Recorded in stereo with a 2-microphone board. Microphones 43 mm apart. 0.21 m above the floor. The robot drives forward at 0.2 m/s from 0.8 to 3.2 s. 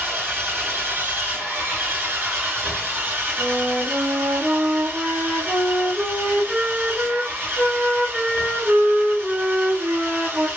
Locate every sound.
0.0 s an engine running: 60° right (ahead or behind), 2 m
3.4 s a flute: 30° right (ahead or behind), 1.5 m